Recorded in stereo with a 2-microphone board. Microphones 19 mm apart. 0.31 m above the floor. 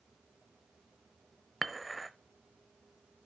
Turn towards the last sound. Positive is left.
turn(degrees=0)  # may be behind; listen again after turning